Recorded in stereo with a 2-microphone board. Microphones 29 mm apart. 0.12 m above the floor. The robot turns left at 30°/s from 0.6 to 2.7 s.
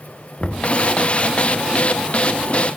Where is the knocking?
40° left (ahead or behind), 1.5 m; by 0.7 s 35° left (ahead or behind), 1.5 m.